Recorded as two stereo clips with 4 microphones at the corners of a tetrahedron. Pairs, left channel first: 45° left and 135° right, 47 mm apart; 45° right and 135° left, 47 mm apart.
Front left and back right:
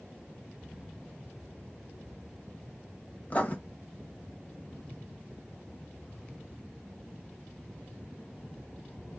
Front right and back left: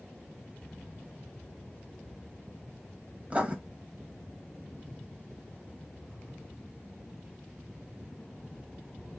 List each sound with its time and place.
3.3 s writing: 85° left, 0.8 m